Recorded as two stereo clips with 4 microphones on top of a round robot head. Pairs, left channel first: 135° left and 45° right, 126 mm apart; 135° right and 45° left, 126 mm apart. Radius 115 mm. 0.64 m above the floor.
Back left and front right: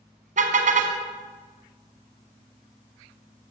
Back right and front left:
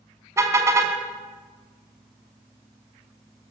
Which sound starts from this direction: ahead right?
A car horn, at 0.4 s.